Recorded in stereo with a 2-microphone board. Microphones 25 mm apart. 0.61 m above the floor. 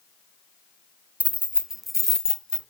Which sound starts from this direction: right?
Keys jangling, at 1.2 s.